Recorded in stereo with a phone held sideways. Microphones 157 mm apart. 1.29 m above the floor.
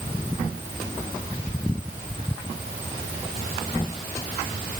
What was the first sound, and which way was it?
Only background noise.